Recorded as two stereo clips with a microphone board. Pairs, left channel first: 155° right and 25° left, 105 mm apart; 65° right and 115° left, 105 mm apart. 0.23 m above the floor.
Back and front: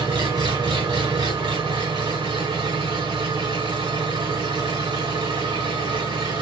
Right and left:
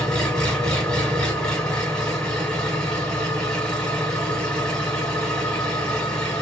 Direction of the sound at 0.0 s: 10° left.